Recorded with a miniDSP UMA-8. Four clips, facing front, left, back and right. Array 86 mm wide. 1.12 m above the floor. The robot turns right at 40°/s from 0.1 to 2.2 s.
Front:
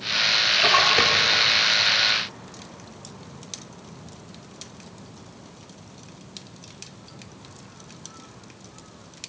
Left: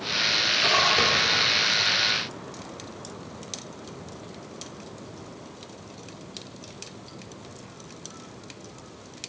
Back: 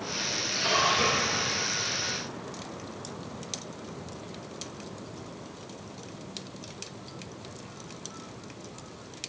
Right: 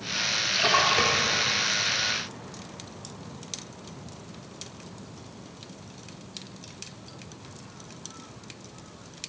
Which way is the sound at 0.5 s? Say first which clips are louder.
Right 1 dB, front 5 dB; 20° right.